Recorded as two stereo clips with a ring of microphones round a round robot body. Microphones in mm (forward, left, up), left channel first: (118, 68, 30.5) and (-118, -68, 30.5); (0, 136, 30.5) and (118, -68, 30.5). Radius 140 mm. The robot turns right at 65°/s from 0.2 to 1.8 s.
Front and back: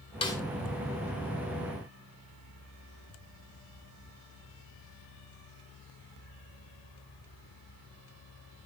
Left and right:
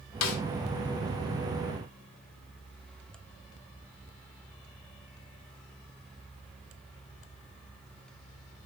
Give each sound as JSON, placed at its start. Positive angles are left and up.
{"t": 0.2, "sound": "a snare drum", "azimuth_deg": 100, "distance_m": 1.0}